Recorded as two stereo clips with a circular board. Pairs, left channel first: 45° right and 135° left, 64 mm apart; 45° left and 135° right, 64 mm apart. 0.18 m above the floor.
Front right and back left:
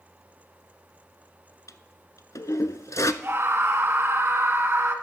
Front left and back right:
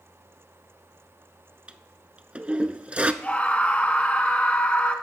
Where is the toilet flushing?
65° right, 0.6 m.